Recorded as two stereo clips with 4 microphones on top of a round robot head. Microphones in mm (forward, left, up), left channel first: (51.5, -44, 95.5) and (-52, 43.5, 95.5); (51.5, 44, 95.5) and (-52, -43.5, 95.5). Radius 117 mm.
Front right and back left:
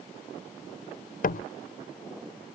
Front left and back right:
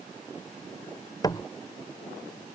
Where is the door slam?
25° right.